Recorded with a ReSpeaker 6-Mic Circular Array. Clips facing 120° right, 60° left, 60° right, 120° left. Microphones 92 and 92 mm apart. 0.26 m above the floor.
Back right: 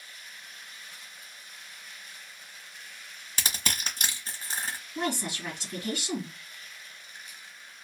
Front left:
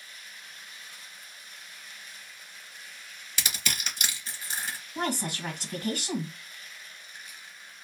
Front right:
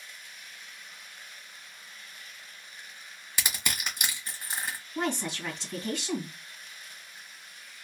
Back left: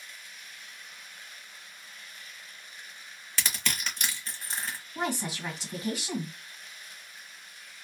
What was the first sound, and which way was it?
Crushing, 125° right.